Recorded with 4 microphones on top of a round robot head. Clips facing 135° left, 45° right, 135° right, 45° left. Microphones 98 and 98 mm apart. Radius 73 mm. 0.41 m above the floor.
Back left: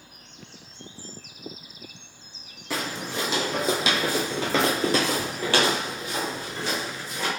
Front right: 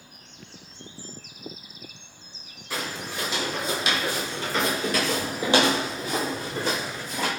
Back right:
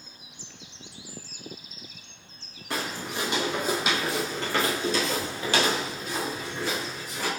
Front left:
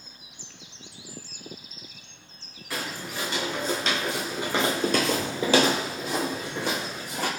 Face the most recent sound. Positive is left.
turn(degrees=0)